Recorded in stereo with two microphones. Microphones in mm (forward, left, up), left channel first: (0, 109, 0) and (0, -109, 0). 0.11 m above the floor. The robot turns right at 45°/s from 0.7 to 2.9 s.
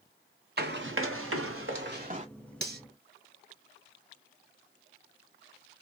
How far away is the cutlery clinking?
About 1.3 m.